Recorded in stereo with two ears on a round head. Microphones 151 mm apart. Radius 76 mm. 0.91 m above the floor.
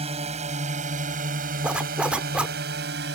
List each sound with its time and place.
0.0 s a drone: 40° right (ahead or behind); by 3.1 s 75° right (ahead or behind)
1.6 s a zipper: 5° right (ahead or behind)